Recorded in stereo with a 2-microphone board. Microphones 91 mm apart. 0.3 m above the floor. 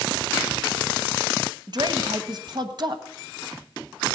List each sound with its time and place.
1.7 s a woman speaking: 50° right (ahead or behind), 1.4 m